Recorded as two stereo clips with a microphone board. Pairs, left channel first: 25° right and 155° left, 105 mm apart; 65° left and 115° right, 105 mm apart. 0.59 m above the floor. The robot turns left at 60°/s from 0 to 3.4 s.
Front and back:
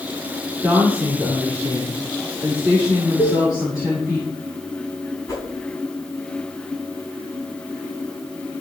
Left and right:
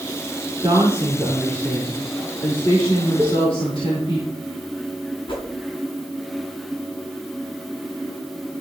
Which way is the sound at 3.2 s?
30° right.